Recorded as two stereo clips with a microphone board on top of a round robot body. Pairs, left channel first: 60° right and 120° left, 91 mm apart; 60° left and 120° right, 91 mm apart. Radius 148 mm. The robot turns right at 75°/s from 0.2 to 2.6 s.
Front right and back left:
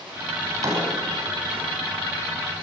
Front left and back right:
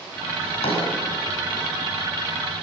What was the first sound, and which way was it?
A drawer, 45° left.